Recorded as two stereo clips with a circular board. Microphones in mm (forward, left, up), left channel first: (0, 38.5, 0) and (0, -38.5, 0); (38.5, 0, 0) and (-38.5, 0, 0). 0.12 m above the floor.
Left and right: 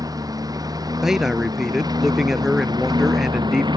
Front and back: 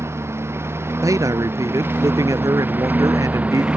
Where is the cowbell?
No cowbell in this recording.